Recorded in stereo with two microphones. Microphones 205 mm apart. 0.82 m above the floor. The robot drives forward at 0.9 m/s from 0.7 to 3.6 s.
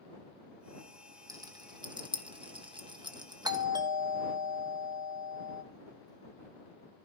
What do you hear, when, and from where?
1.3 s a rattle: 15° right (ahead or behind), 1.5 m; by 3.6 s 20° right (ahead or behind), 1.4 m
3.5 s a doorbell: 20° right (ahead or behind), 0.9 m